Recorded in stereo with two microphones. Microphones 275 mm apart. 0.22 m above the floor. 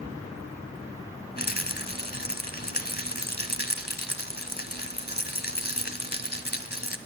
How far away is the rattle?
About 1.0 m.